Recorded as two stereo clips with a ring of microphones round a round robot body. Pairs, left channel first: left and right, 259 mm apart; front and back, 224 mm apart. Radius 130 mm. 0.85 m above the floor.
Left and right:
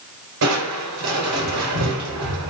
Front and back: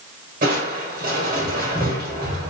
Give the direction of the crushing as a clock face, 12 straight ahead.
4 o'clock.